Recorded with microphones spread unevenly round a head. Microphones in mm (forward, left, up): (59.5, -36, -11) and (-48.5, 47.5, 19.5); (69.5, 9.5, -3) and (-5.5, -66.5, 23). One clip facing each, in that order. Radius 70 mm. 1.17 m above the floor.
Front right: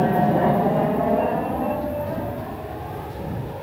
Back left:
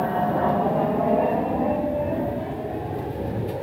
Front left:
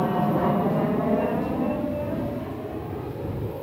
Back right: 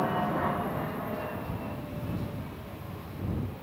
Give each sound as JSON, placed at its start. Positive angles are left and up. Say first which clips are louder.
{"t": 0.0, "sound": "an aircraft", "louder": "front right 4 dB, front left 6 dB", "azimuth_deg": 0}